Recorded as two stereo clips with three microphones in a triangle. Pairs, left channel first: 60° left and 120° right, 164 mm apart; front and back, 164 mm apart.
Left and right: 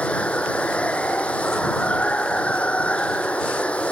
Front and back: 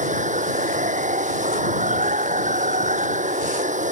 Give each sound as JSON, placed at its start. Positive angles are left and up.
{"t": 0.0, "sound": "running water", "azimuth_deg": 140}